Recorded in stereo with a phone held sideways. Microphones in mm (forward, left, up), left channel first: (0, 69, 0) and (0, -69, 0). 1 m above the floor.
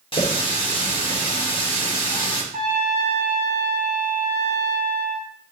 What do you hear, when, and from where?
0.1 s a running tap: 40° left (ahead or behind), 1.8 m
2.5 s a trumpet: 70° right (ahead or behind), 4 m